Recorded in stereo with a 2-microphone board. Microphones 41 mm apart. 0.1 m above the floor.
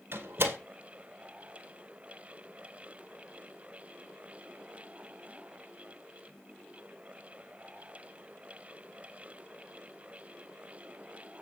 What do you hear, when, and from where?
0.1 s a door slam: 60° right (ahead or behind), 2 m